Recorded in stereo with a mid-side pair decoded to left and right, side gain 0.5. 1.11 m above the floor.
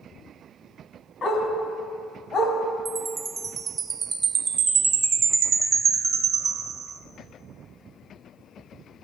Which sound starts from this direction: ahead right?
A chime, at 2.9 s.